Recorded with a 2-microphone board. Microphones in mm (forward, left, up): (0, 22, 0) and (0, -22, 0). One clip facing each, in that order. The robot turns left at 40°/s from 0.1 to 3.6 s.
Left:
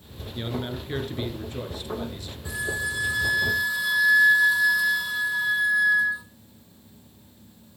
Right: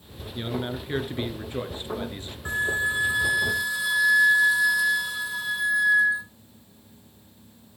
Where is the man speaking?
Straight ahead, 2 m; by 2.4 s 80° right, 2 m.